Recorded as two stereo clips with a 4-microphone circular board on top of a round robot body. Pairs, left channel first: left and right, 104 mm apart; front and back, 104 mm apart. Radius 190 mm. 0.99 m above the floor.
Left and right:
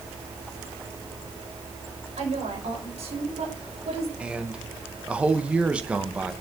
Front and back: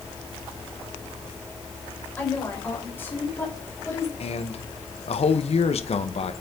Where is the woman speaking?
75° right, 5 m; by 4.1 s 65° right, 4 m.